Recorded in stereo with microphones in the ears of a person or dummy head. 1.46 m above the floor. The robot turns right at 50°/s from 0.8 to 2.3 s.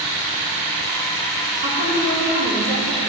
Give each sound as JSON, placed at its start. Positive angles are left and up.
{"t": 1.6, "sound": "a woman speaking", "azimuth_deg": -140, "distance_m": 3.5}